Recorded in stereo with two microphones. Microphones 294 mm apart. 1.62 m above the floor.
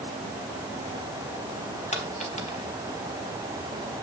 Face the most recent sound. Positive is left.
turn(degrees=25)  # may be behind; listen again after turning